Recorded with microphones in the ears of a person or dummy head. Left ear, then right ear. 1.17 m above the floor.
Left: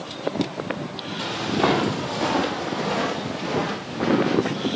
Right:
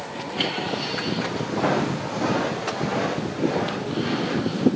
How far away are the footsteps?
About 2.5 m.